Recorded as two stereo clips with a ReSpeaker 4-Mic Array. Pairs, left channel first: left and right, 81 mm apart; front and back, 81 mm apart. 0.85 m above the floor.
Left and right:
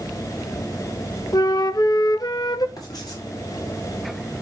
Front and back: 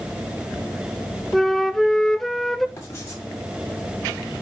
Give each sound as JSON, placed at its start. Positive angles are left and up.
{"t": 1.3, "sound": "a flute", "azimuth_deg": 85, "distance_m": 0.6}
{"t": 2.8, "sound": "writing", "azimuth_deg": 55, "distance_m": 6.0}